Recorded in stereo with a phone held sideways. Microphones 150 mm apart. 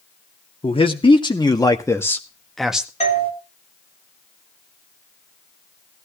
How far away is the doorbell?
About 4.5 m.